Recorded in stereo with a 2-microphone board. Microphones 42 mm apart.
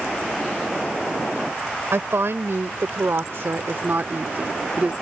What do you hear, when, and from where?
1.9 s a woman speaking: 80° right; by 4.9 s 35° right (ahead or behind)